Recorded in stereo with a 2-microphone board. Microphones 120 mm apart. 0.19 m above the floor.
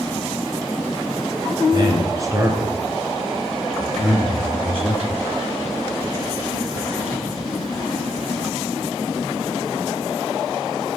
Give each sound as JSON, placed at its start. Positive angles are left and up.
{"t": 1.7, "sound": "a man speaking", "side_deg": -40, "distance_m": 3.0}